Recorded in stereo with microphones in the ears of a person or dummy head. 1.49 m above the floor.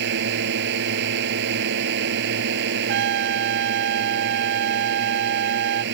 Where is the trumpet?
65° right (ahead or behind).